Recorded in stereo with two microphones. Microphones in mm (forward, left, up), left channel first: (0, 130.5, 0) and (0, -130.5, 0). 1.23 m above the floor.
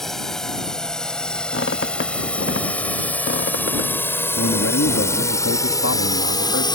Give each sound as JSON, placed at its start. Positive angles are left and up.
{"t": 0.0, "sound": "a drone", "side_deg": 0}
{"t": 1.5, "sound": "a squeak", "side_deg": 50}
{"t": 4.4, "sound": "a man speaking", "side_deg": 75}